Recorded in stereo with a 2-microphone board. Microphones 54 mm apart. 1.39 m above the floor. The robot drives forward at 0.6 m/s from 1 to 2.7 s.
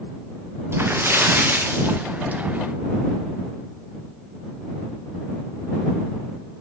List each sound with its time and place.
0.7 s a splash: 45° right (ahead or behind), 1.3 m; by 2.4 s 30° right (ahead or behind), 1.9 m